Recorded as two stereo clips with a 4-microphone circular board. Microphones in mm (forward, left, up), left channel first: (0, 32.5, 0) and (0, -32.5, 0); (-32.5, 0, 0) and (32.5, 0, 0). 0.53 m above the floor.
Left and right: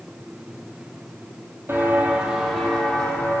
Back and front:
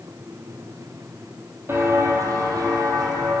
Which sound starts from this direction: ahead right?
Footsteps, at 1.7 s.